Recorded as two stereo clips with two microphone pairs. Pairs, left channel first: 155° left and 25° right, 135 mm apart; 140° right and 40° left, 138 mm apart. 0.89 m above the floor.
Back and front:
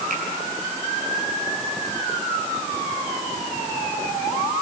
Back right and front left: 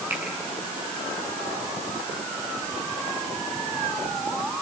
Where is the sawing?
No sawing in this recording.